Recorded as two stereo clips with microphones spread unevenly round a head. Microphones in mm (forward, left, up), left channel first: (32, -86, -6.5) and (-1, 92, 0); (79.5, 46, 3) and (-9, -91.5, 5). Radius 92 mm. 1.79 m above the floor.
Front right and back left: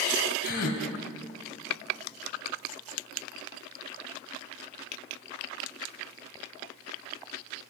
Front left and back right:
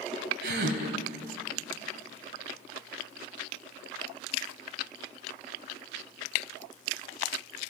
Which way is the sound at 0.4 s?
115° right.